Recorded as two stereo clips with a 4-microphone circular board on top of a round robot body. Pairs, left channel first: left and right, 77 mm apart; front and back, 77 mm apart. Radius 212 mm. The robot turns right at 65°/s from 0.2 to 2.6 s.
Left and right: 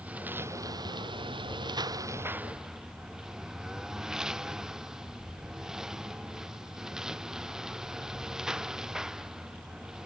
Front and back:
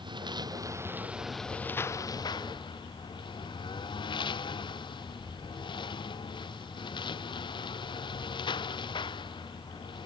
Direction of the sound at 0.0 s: 165° right.